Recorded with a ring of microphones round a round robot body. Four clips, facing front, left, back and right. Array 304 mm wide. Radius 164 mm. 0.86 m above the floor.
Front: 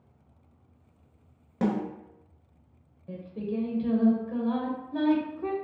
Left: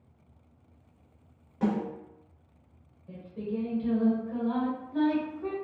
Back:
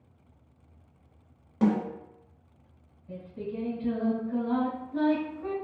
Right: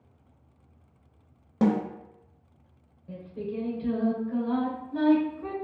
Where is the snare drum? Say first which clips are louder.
Right 5 dB, back 3 dB; 70° right, 1.1 m.